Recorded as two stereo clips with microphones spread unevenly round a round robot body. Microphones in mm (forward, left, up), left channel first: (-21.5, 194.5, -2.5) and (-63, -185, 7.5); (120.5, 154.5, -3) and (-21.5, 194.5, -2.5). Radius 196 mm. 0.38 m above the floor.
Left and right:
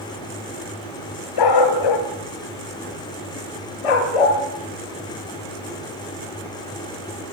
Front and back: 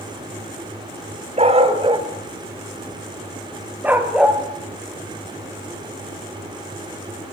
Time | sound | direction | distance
1.4 | a dog barking | 115° left | 2.5 m